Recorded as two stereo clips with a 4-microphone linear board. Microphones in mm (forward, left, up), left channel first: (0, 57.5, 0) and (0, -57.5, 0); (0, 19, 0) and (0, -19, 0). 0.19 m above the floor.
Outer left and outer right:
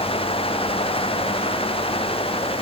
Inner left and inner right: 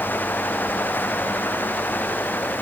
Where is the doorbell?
No doorbell in this recording.